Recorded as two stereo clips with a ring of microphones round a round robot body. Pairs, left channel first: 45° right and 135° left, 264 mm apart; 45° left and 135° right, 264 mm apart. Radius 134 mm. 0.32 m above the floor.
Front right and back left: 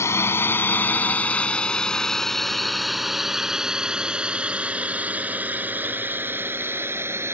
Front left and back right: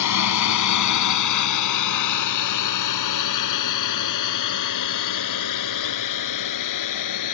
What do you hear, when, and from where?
0.0 s a drone: 35° left; by 7.3 s 55° left